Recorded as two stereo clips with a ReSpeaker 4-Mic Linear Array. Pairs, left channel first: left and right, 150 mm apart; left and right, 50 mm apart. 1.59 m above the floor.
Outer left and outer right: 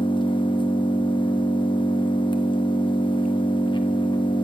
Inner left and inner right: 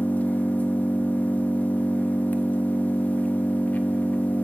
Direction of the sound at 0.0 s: 35° left (ahead or behind).